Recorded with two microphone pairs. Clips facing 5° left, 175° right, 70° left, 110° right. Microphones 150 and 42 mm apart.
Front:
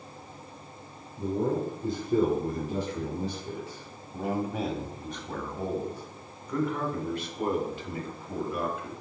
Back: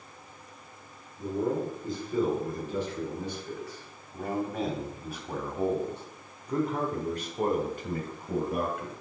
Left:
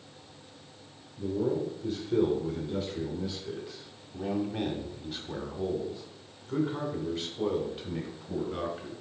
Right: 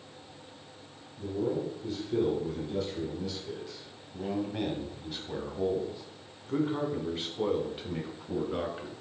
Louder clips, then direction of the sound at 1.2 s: Front 1 dB, left 2 dB; 10° left.